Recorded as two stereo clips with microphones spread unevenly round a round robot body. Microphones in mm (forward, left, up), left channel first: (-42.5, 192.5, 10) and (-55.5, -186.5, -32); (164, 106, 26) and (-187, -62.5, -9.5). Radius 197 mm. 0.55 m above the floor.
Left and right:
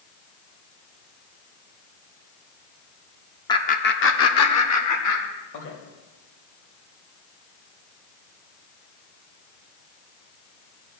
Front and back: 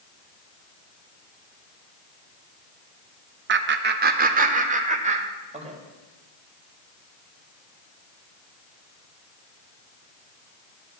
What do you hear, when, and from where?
3.5 s laughter: 170° left, 0.8 m; by 5.8 s 130° left, 2.5 m